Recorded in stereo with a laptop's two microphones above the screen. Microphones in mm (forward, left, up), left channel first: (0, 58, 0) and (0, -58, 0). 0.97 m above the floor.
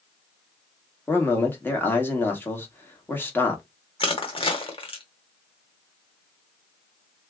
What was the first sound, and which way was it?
A man speaking, 20° left (ahead or behind).